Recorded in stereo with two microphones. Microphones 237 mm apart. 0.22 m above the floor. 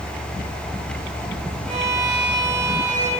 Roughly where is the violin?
Right.